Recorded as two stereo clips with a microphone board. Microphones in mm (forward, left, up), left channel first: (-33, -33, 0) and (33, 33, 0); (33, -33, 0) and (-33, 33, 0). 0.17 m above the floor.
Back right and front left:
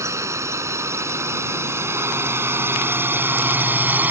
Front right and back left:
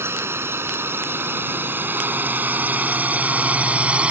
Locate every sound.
0.0 s a drone: 85° left; by 4.1 s 75° left